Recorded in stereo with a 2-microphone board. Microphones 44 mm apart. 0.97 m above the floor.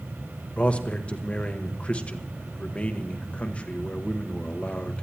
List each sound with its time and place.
0.6 s a man speaking: 30° left (ahead or behind), 1.0 m